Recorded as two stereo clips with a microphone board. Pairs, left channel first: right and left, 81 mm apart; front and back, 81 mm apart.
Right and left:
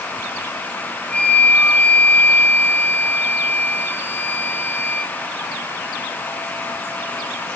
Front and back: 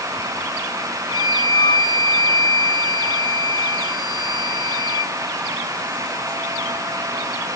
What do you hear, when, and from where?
1.1 s a flute: 20° right, 1.3 m